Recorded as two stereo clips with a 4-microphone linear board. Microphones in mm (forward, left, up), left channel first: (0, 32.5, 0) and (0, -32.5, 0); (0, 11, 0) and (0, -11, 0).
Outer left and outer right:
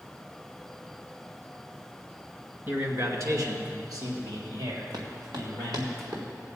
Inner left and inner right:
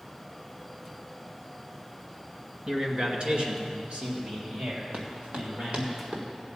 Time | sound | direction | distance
2.7 | a man speaking | 35° right (ahead or behind) | 1.8 m
4.9 | running footsteps | 85° right | 3 m